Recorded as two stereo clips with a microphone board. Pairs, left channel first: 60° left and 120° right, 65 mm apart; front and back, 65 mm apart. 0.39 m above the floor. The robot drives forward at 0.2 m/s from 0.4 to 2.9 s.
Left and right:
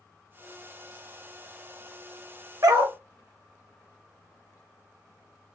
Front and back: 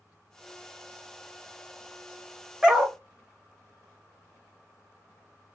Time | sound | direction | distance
2.6 | a dog barking | 100° right | 0.7 m